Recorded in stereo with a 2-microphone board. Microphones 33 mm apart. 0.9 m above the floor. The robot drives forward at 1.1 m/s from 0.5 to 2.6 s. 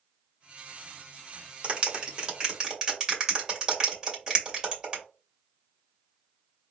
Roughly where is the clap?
Right.